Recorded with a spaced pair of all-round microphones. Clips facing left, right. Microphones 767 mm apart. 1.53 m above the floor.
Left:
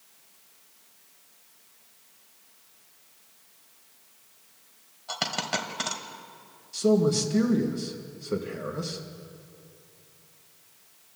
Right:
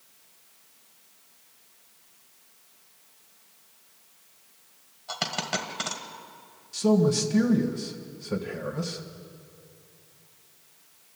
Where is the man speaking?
25° right (ahead or behind), 1.6 m.